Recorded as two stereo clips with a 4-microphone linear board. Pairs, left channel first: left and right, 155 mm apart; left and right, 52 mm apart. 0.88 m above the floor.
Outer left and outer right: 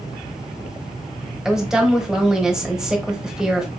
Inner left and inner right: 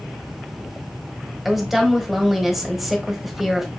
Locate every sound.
1.4 s a woman speaking: 5° right (ahead or behind), 1.1 m